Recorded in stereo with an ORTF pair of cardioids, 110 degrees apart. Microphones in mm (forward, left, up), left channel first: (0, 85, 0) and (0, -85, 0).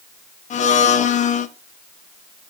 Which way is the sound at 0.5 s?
45° left.